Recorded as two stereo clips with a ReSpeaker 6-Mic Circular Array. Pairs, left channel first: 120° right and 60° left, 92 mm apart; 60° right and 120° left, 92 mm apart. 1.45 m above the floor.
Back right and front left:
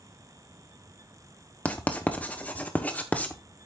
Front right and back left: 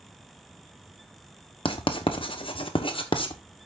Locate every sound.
1.6 s writing: 45° right, 1.1 m